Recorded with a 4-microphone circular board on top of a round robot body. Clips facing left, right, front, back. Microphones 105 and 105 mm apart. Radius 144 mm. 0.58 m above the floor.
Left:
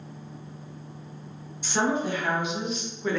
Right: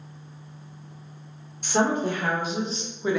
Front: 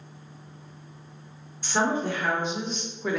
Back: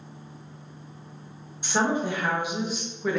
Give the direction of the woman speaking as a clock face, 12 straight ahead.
4 o'clock.